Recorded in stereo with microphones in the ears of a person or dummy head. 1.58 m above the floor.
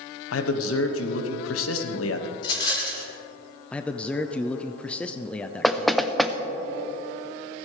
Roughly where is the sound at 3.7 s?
Centre.